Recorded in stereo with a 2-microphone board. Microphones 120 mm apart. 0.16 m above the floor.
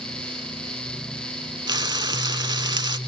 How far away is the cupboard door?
I don't hear a cupboard door.